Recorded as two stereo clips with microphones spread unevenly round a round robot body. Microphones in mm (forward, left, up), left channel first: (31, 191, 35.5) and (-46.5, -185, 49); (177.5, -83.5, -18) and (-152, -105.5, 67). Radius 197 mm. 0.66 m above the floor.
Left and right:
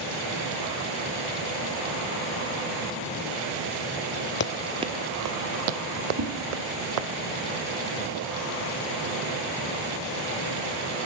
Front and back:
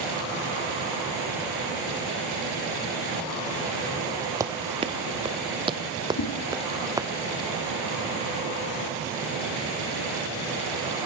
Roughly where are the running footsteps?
Behind left.